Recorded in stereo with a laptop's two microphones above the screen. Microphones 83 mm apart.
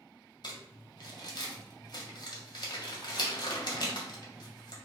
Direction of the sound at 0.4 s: 55° left (ahead or behind).